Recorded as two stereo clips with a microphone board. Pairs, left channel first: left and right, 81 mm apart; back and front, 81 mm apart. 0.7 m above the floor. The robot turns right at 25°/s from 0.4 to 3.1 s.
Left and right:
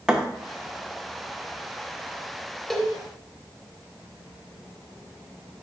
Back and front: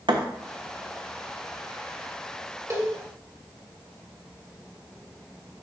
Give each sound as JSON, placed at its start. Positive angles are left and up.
{"t": 0.1, "sound": "a thud", "azimuth_deg": -10, "distance_m": 0.7}
{"t": 2.7, "sound": "a cowbell", "azimuth_deg": 10, "distance_m": 0.9}